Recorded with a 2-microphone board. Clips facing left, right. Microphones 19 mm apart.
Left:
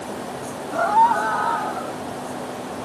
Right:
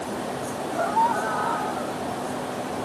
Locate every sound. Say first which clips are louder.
0.7 s a scream: left 6 dB; 35° left (ahead or behind); by 2.0 s 10° left (ahead or behind)